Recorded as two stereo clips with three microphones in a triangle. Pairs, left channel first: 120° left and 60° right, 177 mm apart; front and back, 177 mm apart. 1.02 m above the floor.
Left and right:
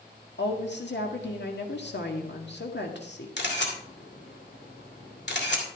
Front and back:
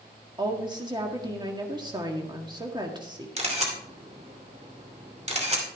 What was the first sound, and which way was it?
A woman speaking, 115° left.